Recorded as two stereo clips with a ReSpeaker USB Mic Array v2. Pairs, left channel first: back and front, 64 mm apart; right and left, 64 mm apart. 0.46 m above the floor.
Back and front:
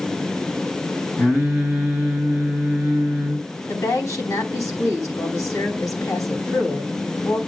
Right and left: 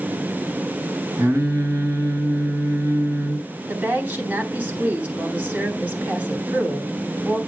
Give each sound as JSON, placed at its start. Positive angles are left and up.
{"t": 1.2, "sound": "singing", "azimuth_deg": 130, "distance_m": 4.0}
{"t": 3.7, "sound": "a woman speaking", "azimuth_deg": 155, "distance_m": 3.5}